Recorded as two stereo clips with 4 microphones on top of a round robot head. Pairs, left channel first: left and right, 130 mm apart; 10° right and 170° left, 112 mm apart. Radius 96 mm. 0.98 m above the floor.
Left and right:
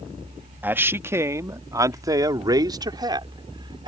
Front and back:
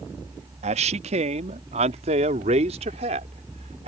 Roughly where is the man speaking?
Behind.